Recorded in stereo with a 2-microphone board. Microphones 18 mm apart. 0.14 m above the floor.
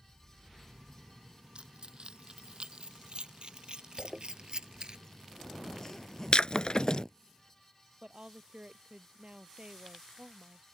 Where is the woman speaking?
60° right (ahead or behind).